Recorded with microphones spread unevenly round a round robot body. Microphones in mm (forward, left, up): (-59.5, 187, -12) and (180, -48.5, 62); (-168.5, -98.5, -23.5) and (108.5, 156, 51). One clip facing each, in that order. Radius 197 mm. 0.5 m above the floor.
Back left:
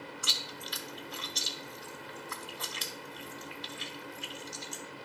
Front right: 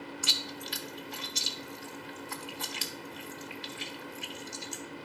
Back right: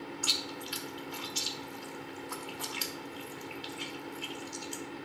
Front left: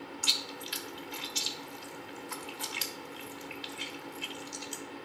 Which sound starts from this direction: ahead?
Chewing, at 0.2 s.